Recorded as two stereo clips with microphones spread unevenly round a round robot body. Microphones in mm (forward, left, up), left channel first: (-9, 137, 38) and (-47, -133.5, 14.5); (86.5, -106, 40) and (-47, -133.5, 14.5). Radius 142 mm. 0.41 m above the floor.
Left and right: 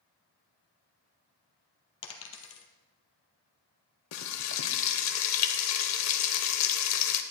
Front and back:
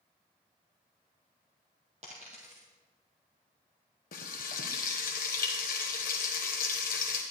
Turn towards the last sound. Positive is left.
turn(degrees=50)